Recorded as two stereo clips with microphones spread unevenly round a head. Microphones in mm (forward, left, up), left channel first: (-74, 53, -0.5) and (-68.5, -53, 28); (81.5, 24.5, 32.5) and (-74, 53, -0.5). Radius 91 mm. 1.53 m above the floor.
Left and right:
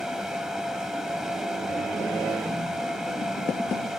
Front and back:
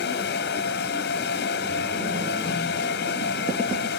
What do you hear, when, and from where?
0.0 s a fan: straight ahead